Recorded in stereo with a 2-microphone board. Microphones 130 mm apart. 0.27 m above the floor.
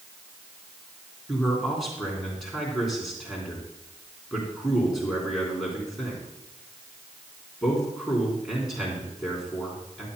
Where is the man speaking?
Centre (ahead or behind), 3.5 m.